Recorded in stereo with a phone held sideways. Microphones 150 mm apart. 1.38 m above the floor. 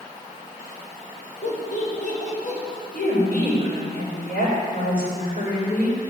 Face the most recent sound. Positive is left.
turn(degrees=80)